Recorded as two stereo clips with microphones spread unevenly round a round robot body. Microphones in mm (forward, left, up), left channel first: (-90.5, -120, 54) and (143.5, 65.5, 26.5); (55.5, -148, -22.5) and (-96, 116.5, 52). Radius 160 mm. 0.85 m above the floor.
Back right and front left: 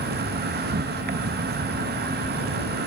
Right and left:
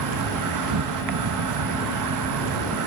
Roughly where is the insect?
Left.